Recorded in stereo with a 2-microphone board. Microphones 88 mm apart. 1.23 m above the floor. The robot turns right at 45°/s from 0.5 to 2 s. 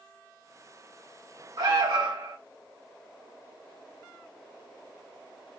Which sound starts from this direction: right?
An alarm, at 1.6 s.